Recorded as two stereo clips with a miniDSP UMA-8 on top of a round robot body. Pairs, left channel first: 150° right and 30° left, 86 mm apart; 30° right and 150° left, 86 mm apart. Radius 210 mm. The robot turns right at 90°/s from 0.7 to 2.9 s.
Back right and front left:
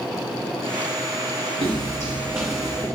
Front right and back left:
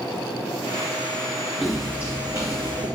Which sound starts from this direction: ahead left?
Footsteps, at 1.6 s.